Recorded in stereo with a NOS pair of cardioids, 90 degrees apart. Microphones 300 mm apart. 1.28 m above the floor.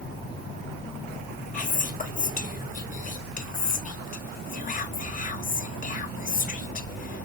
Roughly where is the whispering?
Ahead left.